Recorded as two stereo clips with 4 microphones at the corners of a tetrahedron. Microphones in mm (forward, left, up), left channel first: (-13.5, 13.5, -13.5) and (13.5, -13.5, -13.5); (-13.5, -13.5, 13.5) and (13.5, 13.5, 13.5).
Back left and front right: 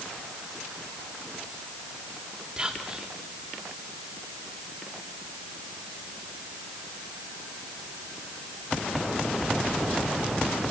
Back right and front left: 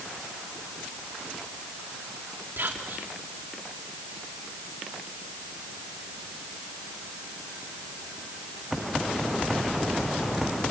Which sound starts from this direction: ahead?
Whispering, at 2.6 s.